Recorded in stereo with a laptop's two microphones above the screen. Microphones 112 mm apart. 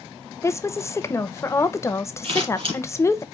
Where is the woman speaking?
25° left (ahead or behind), 0.6 m.